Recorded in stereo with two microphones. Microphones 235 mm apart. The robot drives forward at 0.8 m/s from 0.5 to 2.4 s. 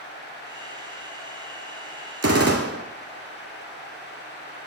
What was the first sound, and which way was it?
A gunshot, 75° right (ahead or behind).